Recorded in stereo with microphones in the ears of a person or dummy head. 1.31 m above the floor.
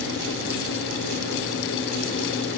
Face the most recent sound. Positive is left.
No sound to turn to.